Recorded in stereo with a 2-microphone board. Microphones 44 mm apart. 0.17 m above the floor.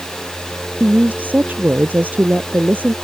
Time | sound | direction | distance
0.8 | a woman speaking | 40° right (ahead or behind) | ?